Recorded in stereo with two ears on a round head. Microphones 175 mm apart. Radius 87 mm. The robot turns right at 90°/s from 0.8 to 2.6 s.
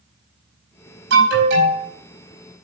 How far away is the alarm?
About 5 m.